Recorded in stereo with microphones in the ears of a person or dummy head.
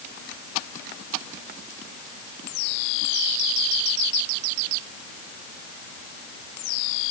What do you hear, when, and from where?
Only background noise.